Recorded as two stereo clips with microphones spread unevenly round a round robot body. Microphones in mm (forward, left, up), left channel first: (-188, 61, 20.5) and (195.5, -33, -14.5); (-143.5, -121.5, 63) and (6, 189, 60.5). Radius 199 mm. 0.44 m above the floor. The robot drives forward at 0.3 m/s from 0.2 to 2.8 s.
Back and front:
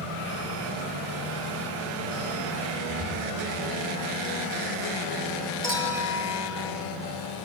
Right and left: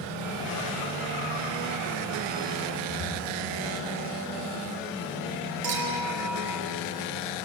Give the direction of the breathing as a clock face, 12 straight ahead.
7 o'clock.